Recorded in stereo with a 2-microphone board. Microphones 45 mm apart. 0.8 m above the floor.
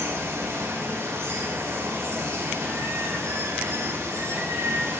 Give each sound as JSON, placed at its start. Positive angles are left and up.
{"t": 0.0, "sound": "running water", "side_deg": -80, "distance_m": 3.0}